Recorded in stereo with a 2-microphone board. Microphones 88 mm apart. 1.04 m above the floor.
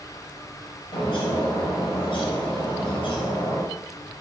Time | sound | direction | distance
0.9 | a bird | 85° left | 6.5 m